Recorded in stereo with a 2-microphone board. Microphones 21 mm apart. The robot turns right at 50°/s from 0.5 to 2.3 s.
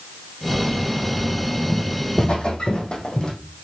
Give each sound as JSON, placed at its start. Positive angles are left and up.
{"t": 1.7, "sound": "footsteps", "side_deg": 30, "distance_m": 2.5}